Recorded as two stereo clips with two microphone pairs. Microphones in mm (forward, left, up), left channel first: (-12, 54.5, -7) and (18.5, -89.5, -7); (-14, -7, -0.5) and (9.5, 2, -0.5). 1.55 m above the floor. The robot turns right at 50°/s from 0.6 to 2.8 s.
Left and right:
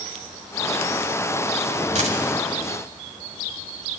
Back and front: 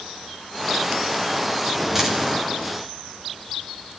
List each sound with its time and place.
1.9 s a dropped coin: 50° right, 2 m; by 2.2 s 35° right, 2 m